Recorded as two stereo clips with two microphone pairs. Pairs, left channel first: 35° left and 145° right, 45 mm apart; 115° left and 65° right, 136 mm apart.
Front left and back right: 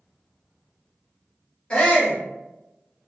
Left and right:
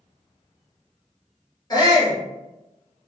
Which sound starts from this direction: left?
A shout, at 1.7 s.